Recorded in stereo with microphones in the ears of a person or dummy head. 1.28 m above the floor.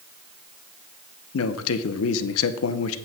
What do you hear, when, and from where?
1.3 s a man speaking: 70° left (ahead or behind), 0.8 m